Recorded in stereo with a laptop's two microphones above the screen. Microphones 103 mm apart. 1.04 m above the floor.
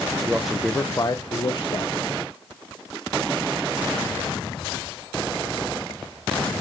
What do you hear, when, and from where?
0.3 s a man speaking: 20° right (ahead or behind), 0.5 m; by 2.1 s 60° left (ahead or behind), 1.1 m